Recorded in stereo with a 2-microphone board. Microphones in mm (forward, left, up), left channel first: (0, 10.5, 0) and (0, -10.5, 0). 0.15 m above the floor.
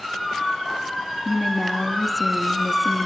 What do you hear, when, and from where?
1.2 s a woman speaking: 15° left (ahead or behind), 1.0 m